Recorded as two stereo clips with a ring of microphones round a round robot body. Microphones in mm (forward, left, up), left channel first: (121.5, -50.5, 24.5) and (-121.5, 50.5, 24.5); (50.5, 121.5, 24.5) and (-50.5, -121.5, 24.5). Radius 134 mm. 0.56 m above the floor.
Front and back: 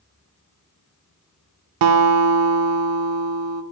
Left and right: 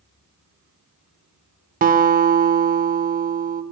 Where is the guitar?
175° right, 0.7 m.